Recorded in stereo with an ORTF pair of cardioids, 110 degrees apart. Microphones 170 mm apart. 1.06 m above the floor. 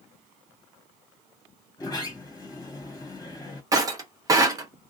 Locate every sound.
1.8 s a sliding door: 20° left, 1.4 m
3.7 s breaking glass: 20° right, 0.9 m